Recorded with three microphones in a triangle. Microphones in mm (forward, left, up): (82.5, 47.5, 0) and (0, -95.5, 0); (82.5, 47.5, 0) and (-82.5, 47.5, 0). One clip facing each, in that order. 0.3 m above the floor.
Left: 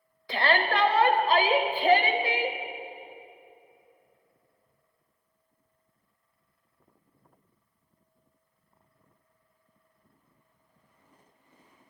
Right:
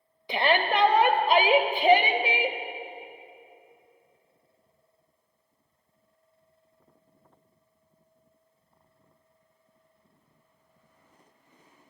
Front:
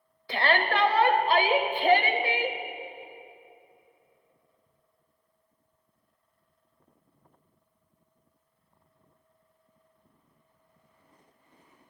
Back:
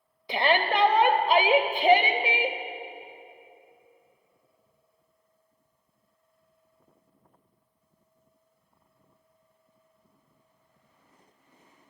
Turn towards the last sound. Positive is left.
turn(degrees=-155)